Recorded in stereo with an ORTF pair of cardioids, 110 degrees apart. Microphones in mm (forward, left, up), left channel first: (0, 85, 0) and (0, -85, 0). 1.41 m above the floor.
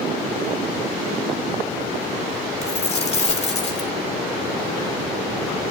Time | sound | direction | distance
2.6 | a dropped coin | 40° left | 2.5 m